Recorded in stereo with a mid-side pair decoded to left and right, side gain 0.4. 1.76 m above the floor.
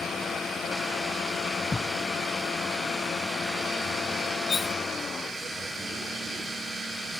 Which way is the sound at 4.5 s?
45° left.